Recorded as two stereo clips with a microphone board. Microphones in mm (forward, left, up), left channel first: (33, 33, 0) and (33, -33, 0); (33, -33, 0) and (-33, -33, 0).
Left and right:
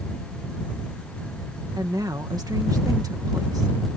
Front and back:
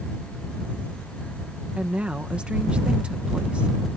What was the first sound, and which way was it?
A woman speaking, 105° right.